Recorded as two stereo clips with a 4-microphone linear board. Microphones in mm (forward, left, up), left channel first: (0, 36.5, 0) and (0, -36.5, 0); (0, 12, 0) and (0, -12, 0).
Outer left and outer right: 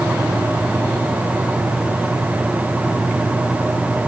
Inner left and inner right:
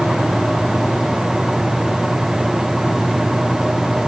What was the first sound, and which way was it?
Only background noise.